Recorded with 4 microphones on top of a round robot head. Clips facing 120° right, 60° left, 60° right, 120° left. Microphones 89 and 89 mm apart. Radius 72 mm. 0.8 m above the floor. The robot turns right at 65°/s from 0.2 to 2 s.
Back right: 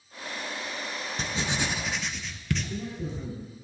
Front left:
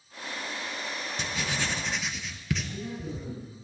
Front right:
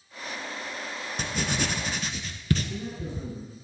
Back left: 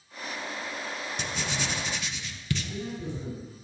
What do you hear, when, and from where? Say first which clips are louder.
1.2 s writing: back right 2 dB, front right 5 dB; 80° right, 0.7 m; by 3.3 s 30° right, 0.7 m
2.6 s a man speaking: back right 2 dB, even; 140° right, 4 m